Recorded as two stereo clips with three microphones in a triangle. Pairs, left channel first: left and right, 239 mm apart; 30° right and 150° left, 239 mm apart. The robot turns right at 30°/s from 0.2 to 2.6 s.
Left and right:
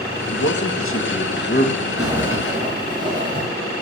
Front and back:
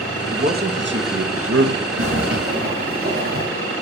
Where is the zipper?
Straight behind, 8.5 m; by 3.5 s 160° right, 8.5 m.